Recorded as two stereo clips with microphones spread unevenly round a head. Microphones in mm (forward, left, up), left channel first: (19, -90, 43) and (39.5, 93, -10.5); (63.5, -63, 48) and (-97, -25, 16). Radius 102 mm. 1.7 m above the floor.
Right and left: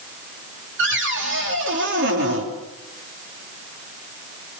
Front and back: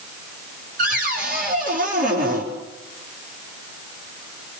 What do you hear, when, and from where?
0.8 s a cupboard door: 115° left, 5 m